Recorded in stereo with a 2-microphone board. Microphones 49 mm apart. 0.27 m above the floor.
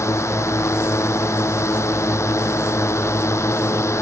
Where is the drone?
70° left (ahead or behind).